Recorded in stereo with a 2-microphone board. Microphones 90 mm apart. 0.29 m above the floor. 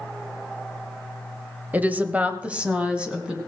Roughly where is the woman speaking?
Centre.